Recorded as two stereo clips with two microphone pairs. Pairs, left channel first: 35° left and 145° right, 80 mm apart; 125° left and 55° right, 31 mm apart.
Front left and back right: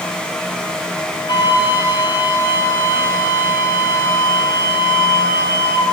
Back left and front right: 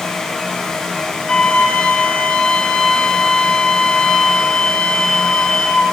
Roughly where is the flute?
Ahead left.